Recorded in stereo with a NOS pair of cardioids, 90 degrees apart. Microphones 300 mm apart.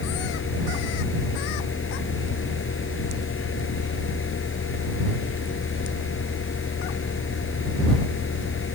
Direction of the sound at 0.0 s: 40° left.